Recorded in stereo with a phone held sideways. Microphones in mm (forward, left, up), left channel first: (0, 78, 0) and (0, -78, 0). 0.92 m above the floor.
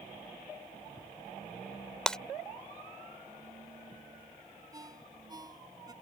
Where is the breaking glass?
5° left (ahead or behind).